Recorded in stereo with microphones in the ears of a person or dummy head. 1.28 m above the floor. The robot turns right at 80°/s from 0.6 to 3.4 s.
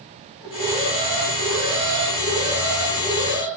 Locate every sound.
0.4 s an alarm: 175° right, 6 m; by 3.5 s 50° left, 6 m